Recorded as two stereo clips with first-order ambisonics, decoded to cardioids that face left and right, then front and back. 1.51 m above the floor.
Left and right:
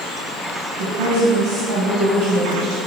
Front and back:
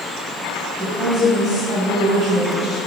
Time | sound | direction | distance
0.8 | a woman speaking | 80° right | 1.6 m